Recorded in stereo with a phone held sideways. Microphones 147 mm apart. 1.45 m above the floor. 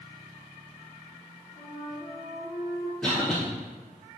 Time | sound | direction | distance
1.6 | a flute | 30° left (ahead or behind) | 1.8 m
3.0 | a cough | 5° left (ahead or behind) | 0.8 m